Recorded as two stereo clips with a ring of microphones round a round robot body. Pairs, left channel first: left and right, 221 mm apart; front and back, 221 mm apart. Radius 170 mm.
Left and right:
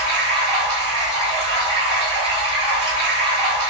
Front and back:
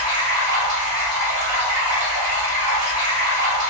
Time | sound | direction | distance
0.0 | running water | 160° right | 1.4 m